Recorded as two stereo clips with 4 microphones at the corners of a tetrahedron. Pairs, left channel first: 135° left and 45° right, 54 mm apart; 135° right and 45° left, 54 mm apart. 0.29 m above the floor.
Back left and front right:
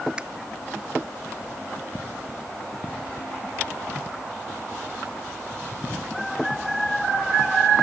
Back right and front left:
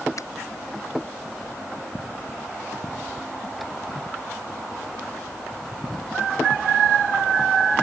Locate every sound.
0.2 s a finger snap: 115° right